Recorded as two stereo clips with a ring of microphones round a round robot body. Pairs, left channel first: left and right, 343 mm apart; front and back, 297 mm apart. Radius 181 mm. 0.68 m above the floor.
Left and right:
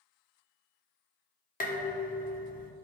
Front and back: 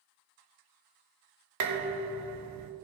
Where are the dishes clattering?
155° left, 1.2 m.